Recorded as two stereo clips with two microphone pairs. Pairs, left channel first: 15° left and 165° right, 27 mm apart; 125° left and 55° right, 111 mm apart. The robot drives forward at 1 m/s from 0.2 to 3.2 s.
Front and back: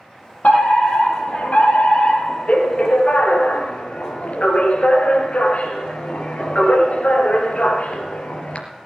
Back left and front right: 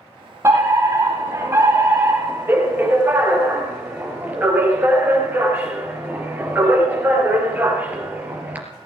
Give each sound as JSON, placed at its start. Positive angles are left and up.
{"t": 0.4, "sound": "a fire alarm", "azimuth_deg": 10, "distance_m": 6.0}